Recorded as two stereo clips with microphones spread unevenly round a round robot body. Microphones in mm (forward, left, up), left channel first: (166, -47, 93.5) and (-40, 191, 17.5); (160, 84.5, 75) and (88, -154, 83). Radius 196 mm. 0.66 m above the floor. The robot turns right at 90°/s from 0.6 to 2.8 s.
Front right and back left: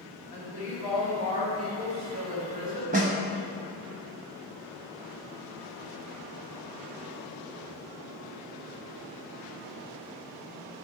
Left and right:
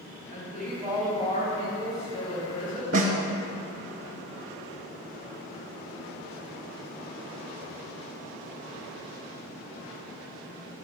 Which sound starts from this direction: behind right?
A snare drum, at 2.9 s.